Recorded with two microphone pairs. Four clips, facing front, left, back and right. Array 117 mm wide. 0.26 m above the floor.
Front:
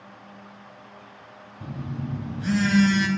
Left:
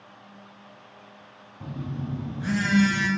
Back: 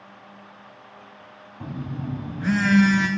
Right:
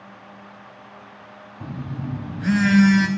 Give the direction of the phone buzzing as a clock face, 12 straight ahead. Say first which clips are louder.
Right 2 dB, back 2 dB; 5 o'clock.